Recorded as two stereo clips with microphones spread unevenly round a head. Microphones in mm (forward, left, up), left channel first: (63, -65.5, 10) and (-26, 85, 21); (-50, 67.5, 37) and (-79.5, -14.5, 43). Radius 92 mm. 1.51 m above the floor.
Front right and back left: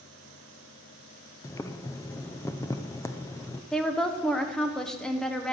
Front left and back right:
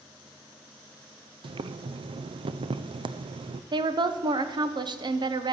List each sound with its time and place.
1.4 s boiling: 135° right, 0.5 m
3.7 s a woman speaking: 145° right, 1.1 m